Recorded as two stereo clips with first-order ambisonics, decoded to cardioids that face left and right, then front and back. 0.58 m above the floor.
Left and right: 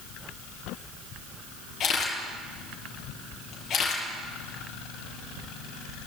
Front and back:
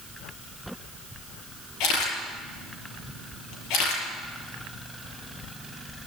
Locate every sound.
1.8 s a camera shutter: 30° left, 7.5 m